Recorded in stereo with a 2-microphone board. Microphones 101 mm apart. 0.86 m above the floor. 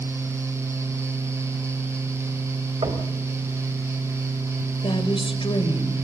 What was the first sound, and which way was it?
Knocking, 60° right (ahead or behind).